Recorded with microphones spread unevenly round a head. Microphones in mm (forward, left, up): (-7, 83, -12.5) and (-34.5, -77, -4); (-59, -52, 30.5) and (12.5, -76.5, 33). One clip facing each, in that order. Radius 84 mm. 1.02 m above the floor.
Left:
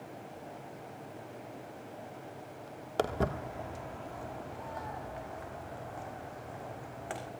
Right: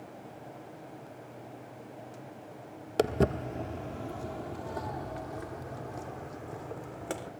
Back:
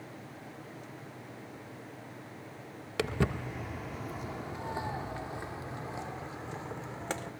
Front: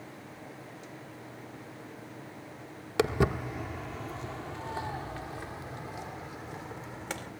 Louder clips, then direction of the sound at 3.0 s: Right 5 dB, front 5 dB; 65° right.